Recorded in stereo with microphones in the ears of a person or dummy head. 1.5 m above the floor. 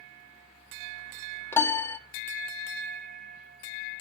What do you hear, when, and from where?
1.5 s a piano: 10° left (ahead or behind), 0.7 m